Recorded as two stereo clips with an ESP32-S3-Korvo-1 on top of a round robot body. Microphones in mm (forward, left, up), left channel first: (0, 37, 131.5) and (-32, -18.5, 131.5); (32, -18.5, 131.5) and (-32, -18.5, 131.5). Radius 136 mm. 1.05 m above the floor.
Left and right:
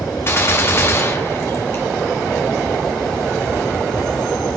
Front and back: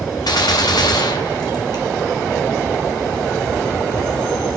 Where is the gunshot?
5° left, 1.5 m.